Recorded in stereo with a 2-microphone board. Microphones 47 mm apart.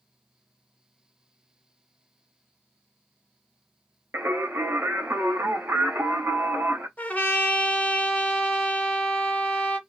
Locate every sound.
4.1 s singing: 60° right (ahead or behind), 1.2 m
7.0 s a trumpet: 35° left (ahead or behind), 1.2 m